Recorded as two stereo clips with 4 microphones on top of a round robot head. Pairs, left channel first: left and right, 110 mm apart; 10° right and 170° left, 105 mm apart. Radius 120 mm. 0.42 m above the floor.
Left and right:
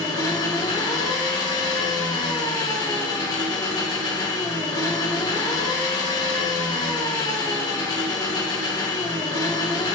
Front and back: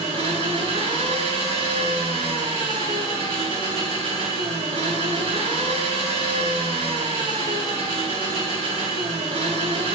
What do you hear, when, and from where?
0.0 s an engine running: 140° left, 1.4 m